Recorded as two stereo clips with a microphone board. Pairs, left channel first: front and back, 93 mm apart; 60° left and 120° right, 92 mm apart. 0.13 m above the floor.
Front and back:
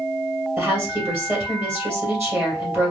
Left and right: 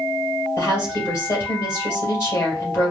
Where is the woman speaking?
120° left, 2.5 m.